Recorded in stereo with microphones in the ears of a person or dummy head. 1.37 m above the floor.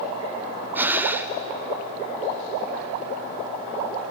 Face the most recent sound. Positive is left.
turn(degrees=-15)  # may be behind; listen again after turning